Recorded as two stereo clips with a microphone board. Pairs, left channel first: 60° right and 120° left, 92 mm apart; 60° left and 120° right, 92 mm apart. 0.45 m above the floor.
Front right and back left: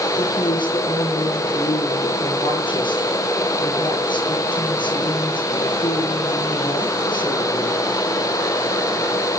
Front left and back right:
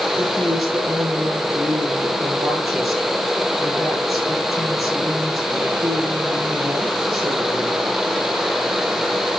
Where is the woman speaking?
30° right, 7.5 m.